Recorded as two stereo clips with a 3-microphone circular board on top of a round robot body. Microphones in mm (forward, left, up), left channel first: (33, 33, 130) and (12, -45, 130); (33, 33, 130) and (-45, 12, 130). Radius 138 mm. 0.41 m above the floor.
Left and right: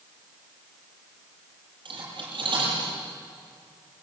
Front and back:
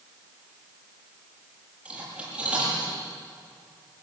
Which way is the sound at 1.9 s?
90° right.